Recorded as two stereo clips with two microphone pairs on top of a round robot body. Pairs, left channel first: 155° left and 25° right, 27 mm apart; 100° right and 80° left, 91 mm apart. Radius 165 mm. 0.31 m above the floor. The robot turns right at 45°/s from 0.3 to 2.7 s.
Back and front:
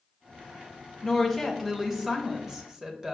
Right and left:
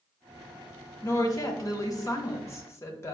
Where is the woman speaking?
130° right, 1.1 m; by 3.1 s 55° right, 1.1 m.